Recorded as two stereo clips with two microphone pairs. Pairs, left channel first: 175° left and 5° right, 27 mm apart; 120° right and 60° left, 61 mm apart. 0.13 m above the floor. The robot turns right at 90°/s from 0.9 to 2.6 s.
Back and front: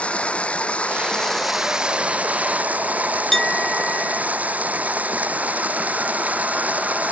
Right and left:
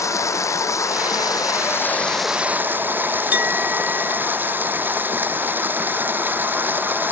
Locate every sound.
0.0 s running water: 150° right; by 7.1 s 5° left
3.3 s a clink: 105° left